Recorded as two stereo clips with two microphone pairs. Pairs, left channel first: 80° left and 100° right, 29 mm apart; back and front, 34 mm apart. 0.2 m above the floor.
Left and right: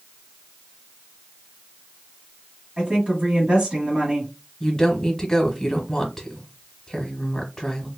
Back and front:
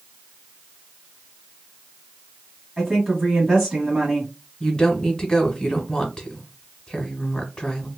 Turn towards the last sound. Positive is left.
turn(degrees=135)